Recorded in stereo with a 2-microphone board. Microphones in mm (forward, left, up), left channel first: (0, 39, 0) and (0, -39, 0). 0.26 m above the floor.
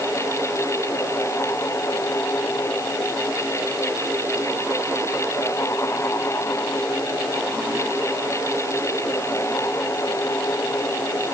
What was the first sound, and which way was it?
Only background noise.